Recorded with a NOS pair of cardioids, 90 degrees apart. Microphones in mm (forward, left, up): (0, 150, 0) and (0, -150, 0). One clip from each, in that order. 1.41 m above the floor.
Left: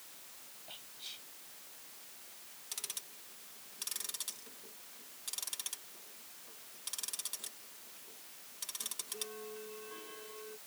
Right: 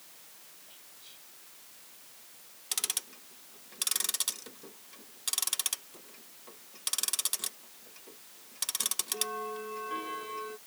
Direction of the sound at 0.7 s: 60° left.